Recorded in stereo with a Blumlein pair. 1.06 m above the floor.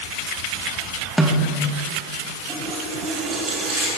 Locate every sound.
1.2 s a snare drum: straight ahead, 1.5 m
2.5 s a running tap: 20° right, 4.5 m